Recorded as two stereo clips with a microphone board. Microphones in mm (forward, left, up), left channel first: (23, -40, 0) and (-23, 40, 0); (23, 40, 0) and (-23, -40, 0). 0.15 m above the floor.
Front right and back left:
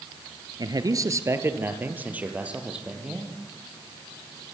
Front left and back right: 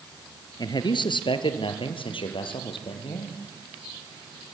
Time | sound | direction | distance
0.6 | a man speaking | 90° left | 2.5 m